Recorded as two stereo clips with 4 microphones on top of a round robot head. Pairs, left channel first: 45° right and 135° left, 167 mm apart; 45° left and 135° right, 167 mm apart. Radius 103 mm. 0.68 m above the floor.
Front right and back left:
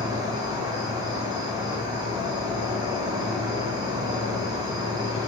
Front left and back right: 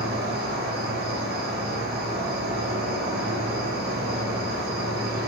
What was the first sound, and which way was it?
An insect, 160° right.